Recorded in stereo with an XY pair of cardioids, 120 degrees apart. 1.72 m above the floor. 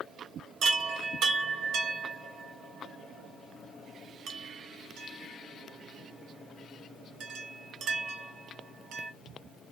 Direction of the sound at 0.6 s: 70° right.